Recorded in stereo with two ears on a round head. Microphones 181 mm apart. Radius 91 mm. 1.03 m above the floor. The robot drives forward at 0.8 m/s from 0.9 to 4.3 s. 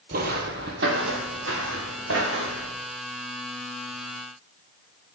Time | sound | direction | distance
0.1 | footsteps | 45° right (ahead or behind) | 1.5 m